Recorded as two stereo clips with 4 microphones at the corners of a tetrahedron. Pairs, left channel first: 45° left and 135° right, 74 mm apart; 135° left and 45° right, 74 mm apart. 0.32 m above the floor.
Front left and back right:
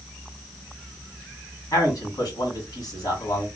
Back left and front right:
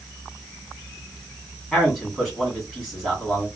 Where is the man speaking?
45° left, 2 m.